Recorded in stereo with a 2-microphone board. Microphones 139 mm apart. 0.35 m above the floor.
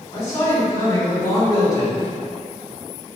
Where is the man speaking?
25° left (ahead or behind), 1.2 m.